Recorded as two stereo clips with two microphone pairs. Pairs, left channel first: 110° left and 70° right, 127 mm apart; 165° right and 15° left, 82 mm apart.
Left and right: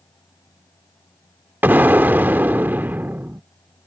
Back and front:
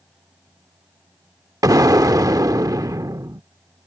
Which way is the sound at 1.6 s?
5° left.